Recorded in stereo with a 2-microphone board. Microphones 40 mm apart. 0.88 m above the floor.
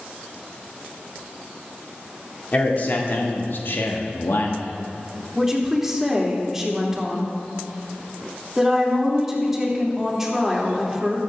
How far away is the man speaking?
About 2.5 m.